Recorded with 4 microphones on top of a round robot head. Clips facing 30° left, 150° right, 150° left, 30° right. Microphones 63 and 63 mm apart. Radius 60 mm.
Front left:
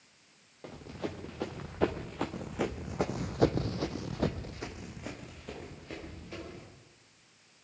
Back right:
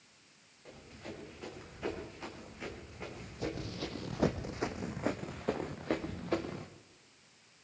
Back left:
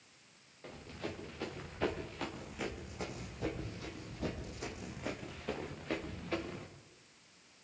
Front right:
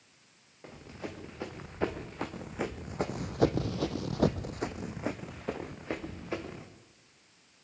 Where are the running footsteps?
45° left, 4.5 m; by 6.7 s 110° right, 4 m.